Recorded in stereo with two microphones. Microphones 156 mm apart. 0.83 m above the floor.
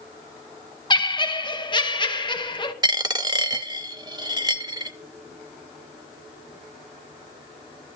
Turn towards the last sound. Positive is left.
turn(degrees=-25)  # may be behind; listen again after turning